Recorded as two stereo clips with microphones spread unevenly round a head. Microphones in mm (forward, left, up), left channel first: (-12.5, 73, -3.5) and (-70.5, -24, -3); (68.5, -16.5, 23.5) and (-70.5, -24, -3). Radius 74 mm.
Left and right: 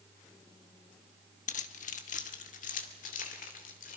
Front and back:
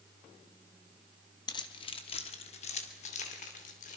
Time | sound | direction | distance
1.5 | keys jangling | 65° left | 1.2 m